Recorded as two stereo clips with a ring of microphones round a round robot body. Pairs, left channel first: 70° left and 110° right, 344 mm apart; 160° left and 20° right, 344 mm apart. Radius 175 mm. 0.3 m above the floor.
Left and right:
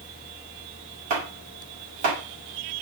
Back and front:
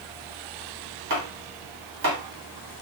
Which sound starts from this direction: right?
Chopping, at 1.1 s.